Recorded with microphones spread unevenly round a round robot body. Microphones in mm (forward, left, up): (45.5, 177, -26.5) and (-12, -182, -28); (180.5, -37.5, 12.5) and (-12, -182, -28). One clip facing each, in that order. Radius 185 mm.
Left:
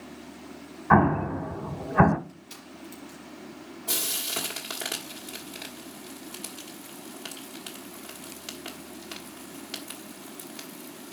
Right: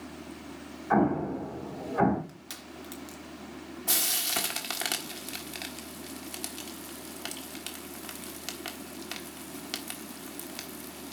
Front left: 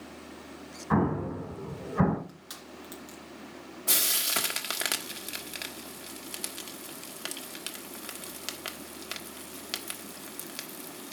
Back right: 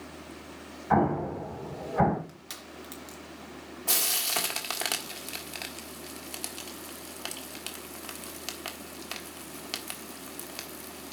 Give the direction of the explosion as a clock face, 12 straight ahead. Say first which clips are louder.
Left 2 dB, back right 1 dB; 8 o'clock.